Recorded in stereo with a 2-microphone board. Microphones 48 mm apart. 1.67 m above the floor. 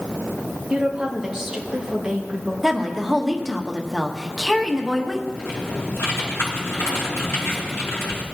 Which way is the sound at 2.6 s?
5° right (ahead or behind).